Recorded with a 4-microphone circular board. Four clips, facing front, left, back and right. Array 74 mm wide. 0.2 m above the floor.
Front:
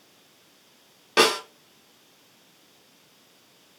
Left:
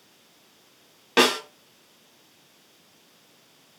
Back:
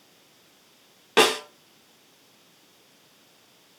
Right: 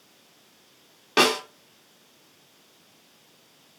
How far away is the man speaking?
No man speaking in this recording.